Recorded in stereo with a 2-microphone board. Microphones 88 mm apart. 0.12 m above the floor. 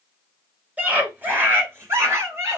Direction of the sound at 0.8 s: 20° right (ahead or behind).